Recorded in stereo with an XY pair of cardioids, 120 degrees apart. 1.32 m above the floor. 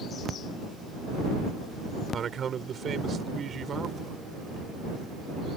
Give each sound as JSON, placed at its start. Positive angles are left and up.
{"t": 2.1, "sound": "a man speaking", "azimuth_deg": -40}